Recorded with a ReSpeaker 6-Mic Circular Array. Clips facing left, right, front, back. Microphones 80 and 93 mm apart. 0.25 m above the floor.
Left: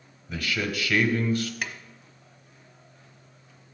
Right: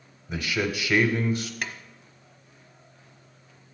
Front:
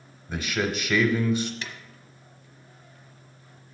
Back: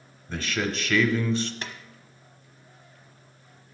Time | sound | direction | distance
0.3 | a man speaking | 60° right | 0.9 m
1.6 | a drawer | 175° left | 1.0 m